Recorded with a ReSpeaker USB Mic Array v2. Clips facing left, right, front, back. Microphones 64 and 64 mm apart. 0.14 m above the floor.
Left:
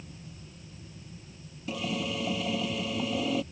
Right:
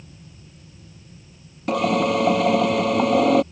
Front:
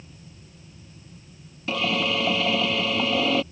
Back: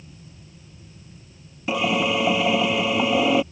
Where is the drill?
110° right.